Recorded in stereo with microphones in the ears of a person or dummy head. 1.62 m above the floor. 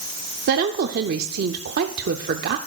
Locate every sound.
0.5 s a woman speaking: 60° right (ahead or behind), 0.6 m